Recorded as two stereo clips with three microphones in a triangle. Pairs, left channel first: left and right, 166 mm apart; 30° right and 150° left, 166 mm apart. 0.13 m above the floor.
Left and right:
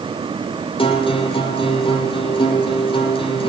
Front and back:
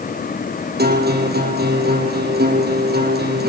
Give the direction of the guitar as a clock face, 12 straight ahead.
7 o'clock.